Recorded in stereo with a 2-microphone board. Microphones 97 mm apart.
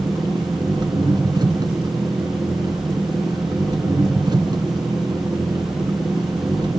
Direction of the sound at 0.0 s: 50° right (ahead or behind).